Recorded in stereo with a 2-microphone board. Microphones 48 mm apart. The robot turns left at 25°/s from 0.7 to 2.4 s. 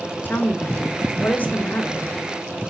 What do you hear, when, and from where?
0.2 s a woman speaking: 90° left, 1.0 m; by 2.1 s 55° left, 1.0 m